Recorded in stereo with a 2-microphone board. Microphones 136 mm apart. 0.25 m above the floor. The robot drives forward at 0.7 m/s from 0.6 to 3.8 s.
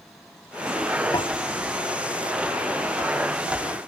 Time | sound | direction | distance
1.1 | tapping | 30° left (ahead or behind) | ?